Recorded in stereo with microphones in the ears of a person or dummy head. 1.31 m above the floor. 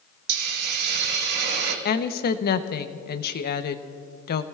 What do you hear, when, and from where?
0.3 s a hiss: 65° right (ahead or behind), 1.7 m
1.9 s a woman speaking: 50° left (ahead or behind), 0.8 m